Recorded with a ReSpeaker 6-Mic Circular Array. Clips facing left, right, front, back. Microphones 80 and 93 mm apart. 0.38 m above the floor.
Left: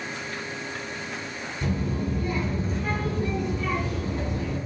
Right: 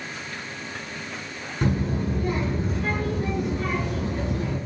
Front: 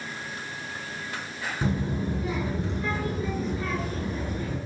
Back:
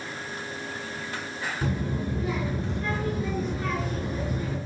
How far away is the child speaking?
About 4.5 m.